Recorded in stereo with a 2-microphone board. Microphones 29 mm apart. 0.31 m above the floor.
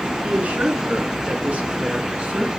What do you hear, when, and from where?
0.2 s a woman speaking: 75° right (ahead or behind), 3.5 m; by 2.5 s 60° right (ahead or behind), 3 m